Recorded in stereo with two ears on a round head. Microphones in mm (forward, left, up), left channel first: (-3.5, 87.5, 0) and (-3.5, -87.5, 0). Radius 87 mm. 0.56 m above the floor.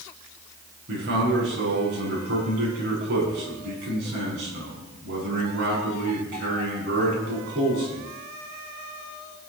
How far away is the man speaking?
About 6.5 m.